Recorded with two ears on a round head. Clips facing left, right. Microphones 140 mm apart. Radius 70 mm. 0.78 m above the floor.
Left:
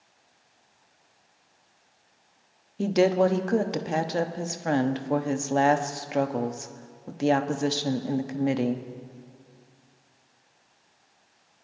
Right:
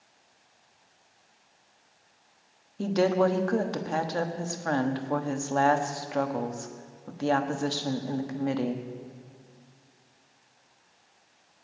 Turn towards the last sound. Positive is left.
turn(degrees=20)  # may be behind; listen again after turning